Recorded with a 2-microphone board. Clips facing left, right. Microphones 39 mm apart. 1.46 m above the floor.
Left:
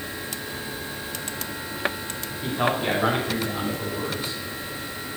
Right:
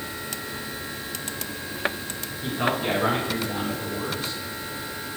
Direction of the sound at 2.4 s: 45° left (ahead or behind).